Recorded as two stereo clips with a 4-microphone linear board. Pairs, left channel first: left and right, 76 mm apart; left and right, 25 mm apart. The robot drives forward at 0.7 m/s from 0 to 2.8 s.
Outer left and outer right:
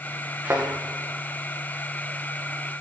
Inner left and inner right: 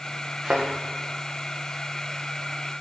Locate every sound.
0.4 s a thud: 20° right (ahead or behind), 6 m